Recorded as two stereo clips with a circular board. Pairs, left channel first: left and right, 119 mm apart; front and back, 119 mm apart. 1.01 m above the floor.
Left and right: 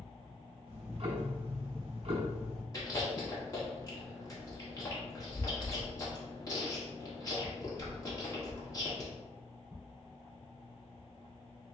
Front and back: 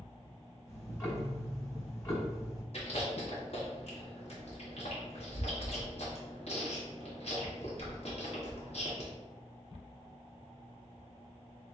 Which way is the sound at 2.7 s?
30° left.